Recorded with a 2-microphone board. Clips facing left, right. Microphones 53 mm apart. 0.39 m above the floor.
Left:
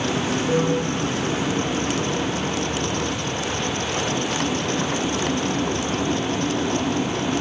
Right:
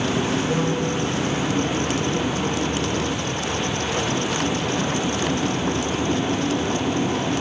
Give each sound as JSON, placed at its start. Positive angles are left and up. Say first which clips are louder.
{"t": 0.5, "sound": "a piano", "louder": "left 1 dB", "side_deg": 25, "distance_m": 3.5}